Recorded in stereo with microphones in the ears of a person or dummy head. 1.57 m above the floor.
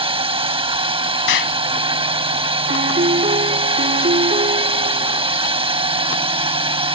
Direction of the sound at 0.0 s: 25° right (ahead or behind).